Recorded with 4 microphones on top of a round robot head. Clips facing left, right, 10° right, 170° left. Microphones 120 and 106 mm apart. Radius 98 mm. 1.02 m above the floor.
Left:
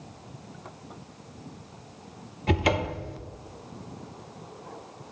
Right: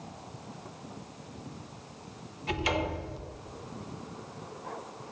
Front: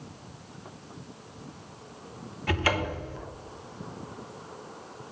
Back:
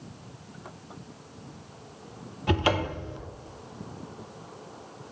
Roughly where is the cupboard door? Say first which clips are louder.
Left 5 dB, back 2 dB; left.